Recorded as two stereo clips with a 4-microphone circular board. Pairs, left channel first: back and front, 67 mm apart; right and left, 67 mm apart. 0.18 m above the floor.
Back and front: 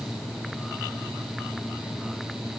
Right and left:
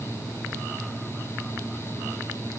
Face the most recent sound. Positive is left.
No sound to turn to.